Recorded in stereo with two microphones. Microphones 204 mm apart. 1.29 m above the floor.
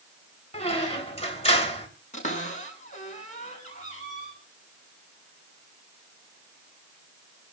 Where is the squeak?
30° left (ahead or behind), 3 m.